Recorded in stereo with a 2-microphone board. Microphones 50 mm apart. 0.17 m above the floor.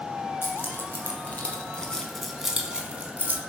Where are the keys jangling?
50° left (ahead or behind), 1.9 m; by 3.4 s 40° right (ahead or behind), 1.4 m.